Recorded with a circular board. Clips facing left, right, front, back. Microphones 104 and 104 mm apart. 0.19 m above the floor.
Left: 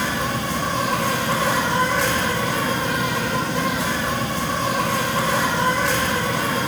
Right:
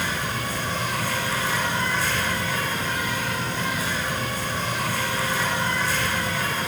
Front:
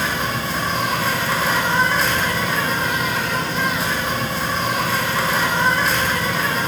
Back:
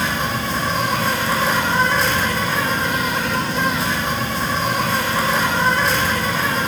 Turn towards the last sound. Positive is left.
turn(degrees=90)